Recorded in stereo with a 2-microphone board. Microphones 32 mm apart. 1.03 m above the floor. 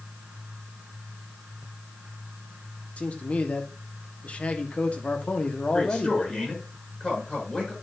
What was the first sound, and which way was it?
A man speaking, 45° left (ahead or behind).